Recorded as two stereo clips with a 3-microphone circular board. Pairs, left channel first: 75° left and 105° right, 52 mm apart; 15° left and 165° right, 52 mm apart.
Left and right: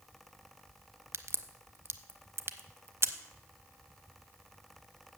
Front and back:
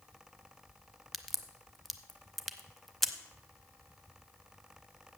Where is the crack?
70° right, 0.6 m.